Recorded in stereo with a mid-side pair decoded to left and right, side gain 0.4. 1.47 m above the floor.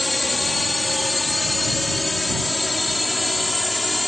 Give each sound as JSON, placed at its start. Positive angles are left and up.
{"t": 0.0, "sound": "a drone", "azimuth_deg": 10}